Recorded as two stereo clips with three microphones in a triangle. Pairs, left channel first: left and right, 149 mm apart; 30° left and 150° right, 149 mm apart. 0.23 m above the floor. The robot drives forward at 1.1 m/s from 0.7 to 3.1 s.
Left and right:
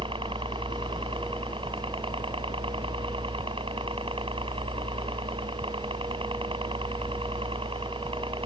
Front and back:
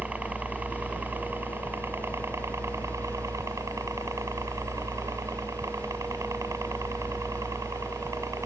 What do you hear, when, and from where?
0.0 s a helicopter: 75° right; by 8.5 s 95° right